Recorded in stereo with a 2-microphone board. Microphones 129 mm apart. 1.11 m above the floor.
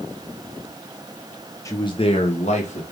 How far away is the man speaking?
About 0.6 m.